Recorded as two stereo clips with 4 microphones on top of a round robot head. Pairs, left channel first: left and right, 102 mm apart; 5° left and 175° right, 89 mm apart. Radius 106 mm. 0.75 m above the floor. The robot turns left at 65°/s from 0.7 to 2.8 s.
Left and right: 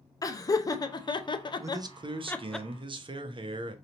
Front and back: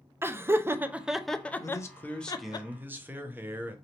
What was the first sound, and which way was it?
Laughter, 130° left.